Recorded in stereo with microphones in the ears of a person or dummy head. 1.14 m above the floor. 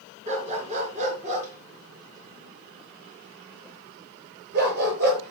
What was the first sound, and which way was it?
A dog barking, 30° right (ahead or behind).